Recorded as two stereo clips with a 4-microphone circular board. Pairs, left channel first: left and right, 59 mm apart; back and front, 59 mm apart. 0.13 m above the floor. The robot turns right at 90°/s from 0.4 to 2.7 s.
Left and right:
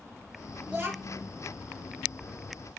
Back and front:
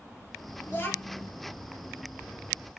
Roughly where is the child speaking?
Behind right.